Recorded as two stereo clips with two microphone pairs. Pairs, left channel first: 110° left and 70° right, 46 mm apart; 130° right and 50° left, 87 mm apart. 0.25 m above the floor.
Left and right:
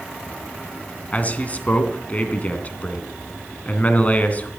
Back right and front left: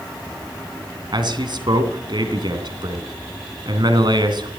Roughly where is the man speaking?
Ahead left.